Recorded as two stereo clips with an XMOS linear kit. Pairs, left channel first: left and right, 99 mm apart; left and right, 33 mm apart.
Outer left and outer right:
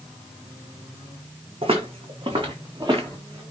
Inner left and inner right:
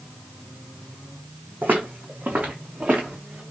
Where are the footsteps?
70° right (ahead or behind), 1.2 m; by 3.4 s 45° right (ahead or behind), 2.0 m.